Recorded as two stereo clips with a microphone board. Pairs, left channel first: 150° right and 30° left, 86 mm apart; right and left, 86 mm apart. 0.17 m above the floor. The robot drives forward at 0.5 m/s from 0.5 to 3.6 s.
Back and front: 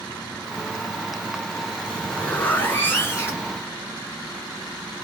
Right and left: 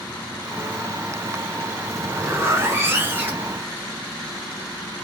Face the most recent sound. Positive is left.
turn(degrees=155)